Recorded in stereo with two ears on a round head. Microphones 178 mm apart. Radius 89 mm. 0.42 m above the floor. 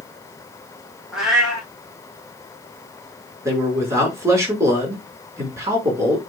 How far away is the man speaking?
About 6 m.